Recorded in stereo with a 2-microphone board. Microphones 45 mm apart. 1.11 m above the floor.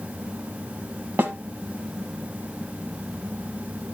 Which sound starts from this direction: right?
A snare drum, at 1.2 s.